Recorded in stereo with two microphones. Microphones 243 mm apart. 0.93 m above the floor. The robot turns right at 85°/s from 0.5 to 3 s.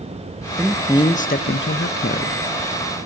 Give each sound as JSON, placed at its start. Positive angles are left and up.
{"t": 0.6, "sound": "a man speaking", "azimuth_deg": -10, "distance_m": 0.6}